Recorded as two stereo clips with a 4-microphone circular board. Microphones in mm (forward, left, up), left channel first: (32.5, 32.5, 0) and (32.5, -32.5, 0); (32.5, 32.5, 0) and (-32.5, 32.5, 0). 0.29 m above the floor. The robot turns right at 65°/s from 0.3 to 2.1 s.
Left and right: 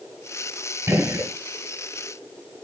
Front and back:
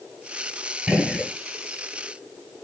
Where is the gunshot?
110° right, 1.2 m; by 1.3 s 80° right, 1.2 m.